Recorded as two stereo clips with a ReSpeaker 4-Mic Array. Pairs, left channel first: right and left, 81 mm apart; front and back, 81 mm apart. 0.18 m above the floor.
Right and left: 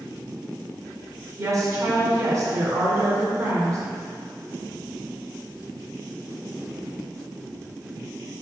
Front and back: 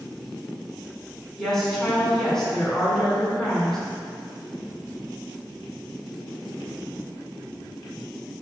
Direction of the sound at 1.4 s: 80° left.